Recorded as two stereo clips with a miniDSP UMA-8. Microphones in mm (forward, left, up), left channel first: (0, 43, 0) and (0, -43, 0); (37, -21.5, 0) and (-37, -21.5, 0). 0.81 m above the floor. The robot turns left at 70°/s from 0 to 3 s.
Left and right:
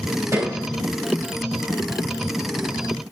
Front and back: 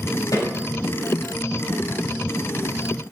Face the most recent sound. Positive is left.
turn(degrees=140)